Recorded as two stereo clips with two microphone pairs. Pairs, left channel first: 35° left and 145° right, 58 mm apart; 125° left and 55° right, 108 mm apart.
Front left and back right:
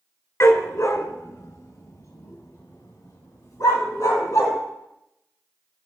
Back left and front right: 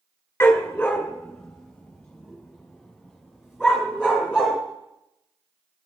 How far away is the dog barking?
About 1.9 m.